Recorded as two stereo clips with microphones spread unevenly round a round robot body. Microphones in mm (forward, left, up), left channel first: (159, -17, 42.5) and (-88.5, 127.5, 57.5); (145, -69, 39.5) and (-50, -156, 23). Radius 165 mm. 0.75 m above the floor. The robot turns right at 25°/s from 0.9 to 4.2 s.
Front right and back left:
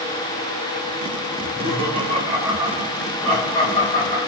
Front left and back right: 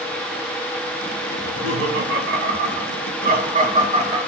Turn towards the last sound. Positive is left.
turn(degrees=-90)